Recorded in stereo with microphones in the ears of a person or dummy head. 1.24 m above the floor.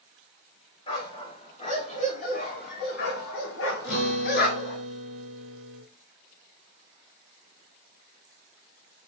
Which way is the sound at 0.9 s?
25° left (ahead or behind).